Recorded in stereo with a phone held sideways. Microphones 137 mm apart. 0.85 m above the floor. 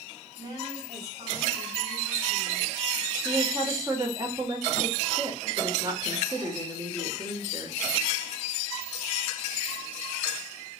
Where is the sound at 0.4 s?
25° right (ahead or behind), 5.5 m.